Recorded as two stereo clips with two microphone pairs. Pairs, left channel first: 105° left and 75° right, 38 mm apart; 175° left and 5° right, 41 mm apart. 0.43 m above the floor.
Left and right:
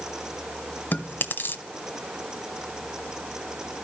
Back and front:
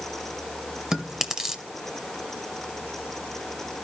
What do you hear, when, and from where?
0.9 s chewing: 80° left, 1.3 m